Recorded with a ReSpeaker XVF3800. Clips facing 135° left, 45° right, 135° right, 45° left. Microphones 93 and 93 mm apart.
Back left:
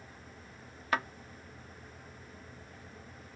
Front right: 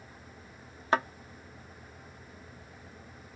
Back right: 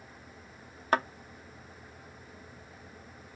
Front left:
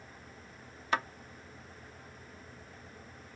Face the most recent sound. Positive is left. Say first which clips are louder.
# front right 5 dB, back right 4 dB
turn(degrees=-100)